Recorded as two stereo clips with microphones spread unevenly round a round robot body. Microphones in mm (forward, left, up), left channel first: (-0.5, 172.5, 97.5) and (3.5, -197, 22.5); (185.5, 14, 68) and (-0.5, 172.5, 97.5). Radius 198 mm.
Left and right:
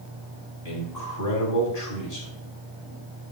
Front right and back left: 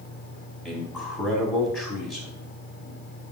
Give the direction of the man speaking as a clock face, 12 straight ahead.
10 o'clock.